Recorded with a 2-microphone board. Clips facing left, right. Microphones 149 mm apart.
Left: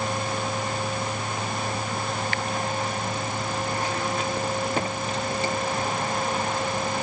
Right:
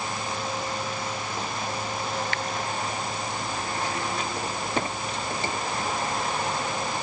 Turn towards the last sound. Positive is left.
No sound to turn to.